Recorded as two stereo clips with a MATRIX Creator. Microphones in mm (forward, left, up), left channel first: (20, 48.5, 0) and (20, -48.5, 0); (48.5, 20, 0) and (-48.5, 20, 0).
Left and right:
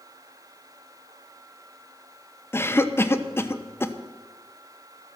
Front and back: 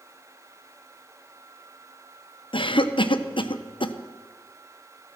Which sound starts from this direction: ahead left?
A cough, at 2.5 s.